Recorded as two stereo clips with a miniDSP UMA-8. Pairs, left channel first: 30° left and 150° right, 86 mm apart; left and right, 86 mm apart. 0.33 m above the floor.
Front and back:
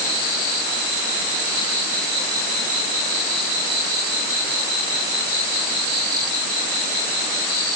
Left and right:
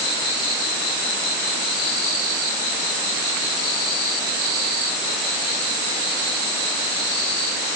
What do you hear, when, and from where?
Only background noise.